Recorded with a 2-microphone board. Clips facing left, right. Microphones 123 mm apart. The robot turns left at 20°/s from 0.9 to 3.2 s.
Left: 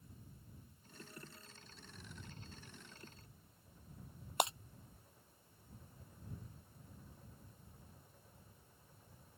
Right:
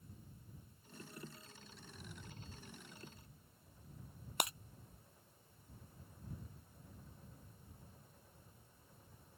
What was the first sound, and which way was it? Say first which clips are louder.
Breaking glass: left 5 dB; 25° left (ahead or behind).